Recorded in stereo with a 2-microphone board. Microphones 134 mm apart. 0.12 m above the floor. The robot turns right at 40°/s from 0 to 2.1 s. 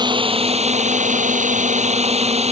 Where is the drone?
145° right; by 2.5 s 60° right.